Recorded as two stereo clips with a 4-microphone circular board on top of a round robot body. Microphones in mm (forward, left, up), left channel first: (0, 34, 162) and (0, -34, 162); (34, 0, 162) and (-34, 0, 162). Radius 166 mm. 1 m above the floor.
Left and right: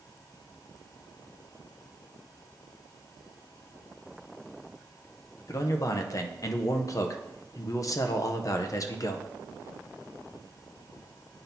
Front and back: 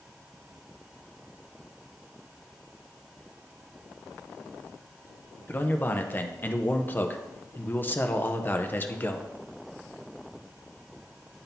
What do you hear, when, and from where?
5.5 s a man speaking: 60° left, 0.9 m